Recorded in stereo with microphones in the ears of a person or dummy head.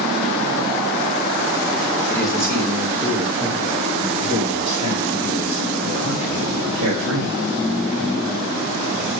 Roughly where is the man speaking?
Centre.